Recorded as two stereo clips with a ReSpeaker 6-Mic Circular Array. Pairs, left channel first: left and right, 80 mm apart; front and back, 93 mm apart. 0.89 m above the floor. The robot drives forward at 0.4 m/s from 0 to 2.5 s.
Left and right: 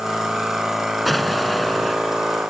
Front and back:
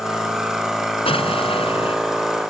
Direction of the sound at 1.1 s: Straight ahead.